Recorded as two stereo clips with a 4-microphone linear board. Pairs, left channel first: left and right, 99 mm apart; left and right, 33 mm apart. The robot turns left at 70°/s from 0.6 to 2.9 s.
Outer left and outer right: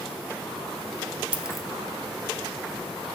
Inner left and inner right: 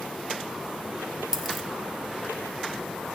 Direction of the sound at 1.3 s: 15° right (ahead or behind).